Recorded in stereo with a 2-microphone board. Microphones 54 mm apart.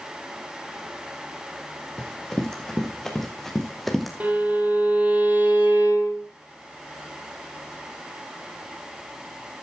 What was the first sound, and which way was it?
Running footsteps, 15° left (ahead or behind).